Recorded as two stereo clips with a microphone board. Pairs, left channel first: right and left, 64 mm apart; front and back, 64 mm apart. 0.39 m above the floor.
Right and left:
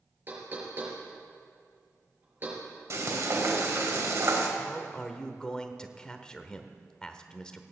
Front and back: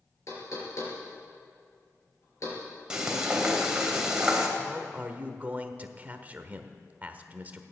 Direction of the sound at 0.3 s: 30° left.